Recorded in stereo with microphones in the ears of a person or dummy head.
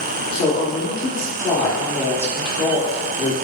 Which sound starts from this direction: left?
A woman speaking, at 0.3 s.